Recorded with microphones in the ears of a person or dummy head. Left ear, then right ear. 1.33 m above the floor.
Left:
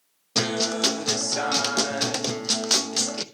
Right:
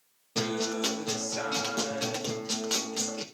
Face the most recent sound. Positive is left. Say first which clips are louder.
# left 6 dB
turn(degrees=40)  # may be behind; listen again after turning